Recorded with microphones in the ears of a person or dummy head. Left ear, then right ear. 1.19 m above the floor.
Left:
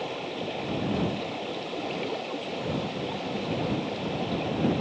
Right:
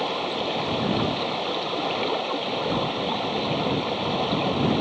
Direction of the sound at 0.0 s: 40° right (ahead or behind).